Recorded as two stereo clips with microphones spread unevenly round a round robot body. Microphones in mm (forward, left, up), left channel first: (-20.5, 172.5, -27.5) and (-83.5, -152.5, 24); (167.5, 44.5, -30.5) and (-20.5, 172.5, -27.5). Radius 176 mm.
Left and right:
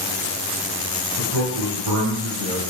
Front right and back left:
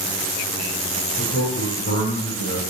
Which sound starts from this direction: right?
A man speaking, at 1.2 s.